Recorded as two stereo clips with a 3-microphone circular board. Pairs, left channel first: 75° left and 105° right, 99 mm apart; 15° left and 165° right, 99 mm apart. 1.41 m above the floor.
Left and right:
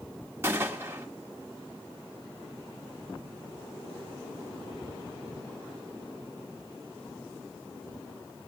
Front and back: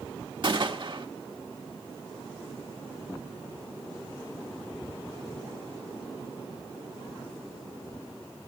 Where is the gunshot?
160° right, 1.3 m.